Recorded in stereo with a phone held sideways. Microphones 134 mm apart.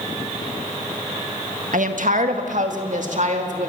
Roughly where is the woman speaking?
Right.